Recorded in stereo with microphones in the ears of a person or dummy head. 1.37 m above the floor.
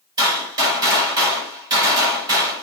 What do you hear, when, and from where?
0.2 s a gunshot: 20° right (ahead or behind), 5.5 m